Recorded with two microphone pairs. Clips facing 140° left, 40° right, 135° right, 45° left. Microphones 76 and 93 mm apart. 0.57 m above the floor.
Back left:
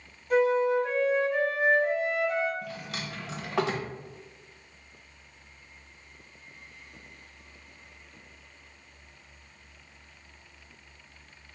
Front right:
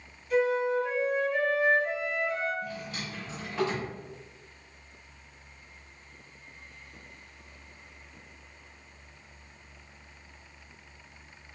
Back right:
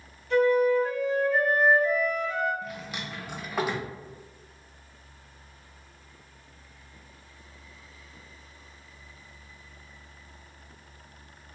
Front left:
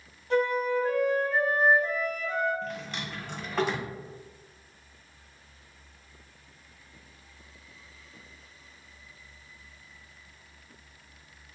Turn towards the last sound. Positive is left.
turn(degrees=145)